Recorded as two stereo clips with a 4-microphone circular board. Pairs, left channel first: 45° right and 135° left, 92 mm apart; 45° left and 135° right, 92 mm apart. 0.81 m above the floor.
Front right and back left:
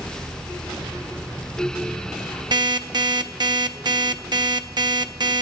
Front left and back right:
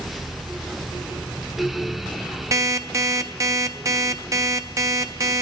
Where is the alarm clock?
170° left, 0.7 m.